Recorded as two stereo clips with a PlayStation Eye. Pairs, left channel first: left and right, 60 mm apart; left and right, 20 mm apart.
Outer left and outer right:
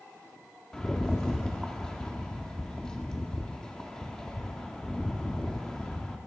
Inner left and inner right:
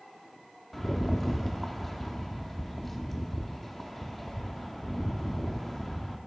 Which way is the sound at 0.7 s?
15° left (ahead or behind).